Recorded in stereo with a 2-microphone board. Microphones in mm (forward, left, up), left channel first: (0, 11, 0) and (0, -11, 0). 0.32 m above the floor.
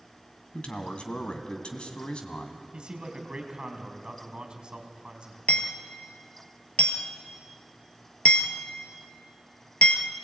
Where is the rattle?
I don't hear a rattle.